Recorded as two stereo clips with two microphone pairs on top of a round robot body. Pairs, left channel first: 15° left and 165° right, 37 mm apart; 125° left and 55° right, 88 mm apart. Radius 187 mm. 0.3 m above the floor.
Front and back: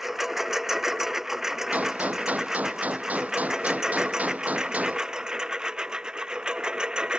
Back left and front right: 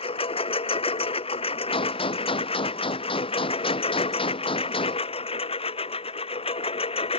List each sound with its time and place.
0.0 s a lawn mower: 115° left; by 7.2 s 130° left
1.7 s a gunshot: 150° left